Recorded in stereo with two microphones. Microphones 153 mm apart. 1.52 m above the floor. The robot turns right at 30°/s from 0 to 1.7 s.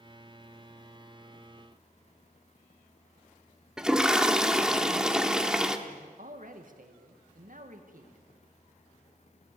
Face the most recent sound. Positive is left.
turn(degrees=-60)  # may be behind; listen again after turning